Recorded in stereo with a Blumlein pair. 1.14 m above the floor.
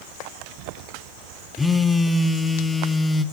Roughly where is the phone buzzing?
Ahead.